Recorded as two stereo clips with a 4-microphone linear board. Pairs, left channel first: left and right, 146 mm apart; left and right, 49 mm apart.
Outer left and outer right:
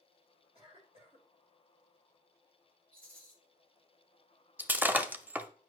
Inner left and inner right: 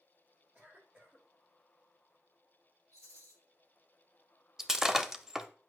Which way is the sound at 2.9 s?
80° right.